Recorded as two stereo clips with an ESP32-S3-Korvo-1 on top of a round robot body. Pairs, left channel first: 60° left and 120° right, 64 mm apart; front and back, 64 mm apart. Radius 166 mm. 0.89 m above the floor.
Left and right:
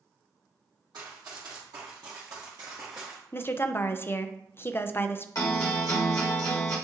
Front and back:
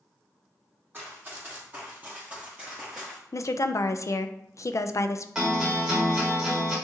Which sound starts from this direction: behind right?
Running footsteps, at 0.9 s.